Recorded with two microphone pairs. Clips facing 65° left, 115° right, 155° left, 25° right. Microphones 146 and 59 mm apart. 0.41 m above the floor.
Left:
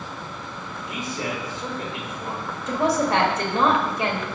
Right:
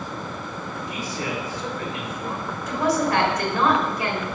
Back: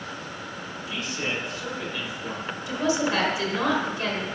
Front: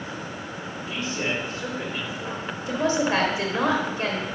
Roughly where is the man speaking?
Ahead.